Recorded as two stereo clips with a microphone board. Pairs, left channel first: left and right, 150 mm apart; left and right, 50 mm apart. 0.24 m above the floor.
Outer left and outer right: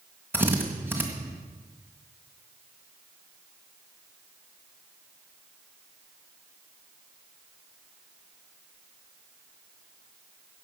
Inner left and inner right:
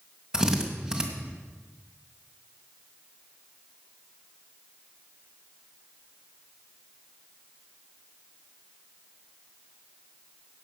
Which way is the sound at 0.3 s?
15° right (ahead or behind).